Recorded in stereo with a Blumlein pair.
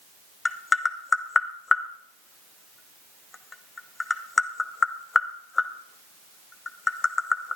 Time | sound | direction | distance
0.5 | tapping | 15° left | 0.8 m